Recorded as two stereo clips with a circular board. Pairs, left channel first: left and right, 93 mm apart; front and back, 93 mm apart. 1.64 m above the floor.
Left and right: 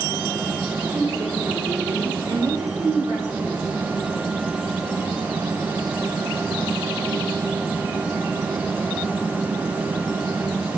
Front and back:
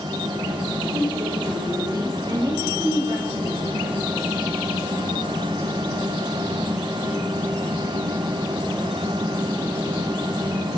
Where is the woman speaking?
135° right, 6 m.